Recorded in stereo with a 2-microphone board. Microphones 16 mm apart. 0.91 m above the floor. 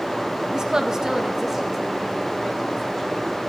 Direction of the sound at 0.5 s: 45° right (ahead or behind).